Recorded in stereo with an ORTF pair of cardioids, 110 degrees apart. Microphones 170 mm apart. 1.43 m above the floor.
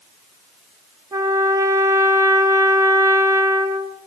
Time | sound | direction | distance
1.1 | a trumpet | 20° right | 1.0 m